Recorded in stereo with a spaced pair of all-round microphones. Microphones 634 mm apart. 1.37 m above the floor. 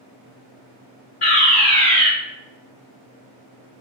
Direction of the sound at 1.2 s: 35° left (ahead or behind).